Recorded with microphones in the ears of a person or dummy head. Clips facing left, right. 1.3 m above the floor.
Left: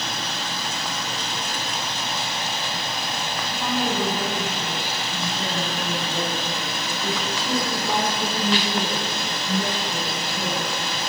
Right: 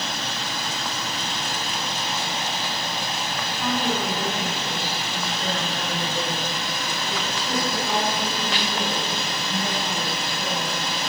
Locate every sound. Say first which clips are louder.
3.5 s a woman speaking: even; 15° left (ahead or behind), 9.5 m; by 10.7 s 50° left (ahead or behind), 11 m